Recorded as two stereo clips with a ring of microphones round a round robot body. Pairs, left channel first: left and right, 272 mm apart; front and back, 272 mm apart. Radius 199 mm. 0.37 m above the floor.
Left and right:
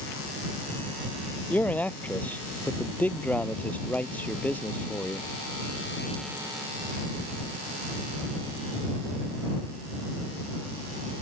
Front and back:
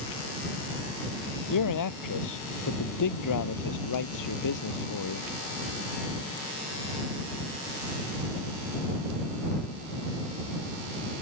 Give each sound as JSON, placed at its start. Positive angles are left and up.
{"t": 1.5, "sound": "a man speaking", "azimuth_deg": 5}